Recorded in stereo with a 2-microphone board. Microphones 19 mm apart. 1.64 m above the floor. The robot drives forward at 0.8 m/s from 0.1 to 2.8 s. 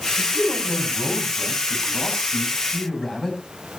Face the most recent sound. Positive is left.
turn(degrees=20)  # may be behind; listen again after turning